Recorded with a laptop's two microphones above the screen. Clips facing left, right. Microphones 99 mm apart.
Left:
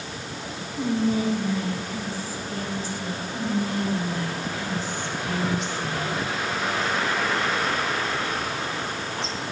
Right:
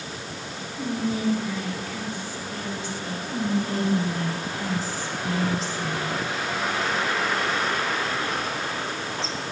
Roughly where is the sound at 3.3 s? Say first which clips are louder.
Right 1 dB; right.